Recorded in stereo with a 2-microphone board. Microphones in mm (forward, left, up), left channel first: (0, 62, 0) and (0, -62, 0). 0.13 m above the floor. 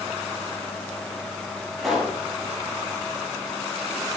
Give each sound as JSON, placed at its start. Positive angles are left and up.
{"t": 1.8, "sound": "a pop", "side_deg": 5, "distance_m": 5.0}